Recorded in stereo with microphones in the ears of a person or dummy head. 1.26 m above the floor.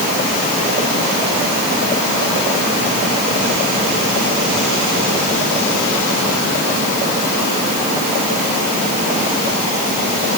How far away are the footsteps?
No footsteps in this recording.